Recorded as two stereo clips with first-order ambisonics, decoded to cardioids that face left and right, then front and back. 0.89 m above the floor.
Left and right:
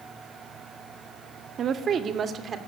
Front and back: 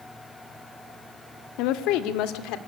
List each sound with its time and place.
1.6 s a woman speaking: 30° right, 1.5 m; by 2.6 s 25° right, 2 m